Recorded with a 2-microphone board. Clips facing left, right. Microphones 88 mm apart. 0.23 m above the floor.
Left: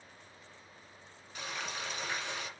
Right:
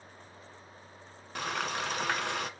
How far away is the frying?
About 1.0 m.